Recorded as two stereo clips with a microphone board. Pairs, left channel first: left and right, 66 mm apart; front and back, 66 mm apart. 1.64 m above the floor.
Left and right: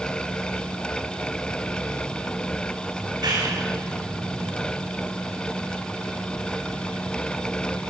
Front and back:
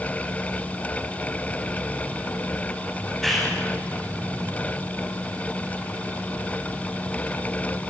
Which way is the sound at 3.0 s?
85° right.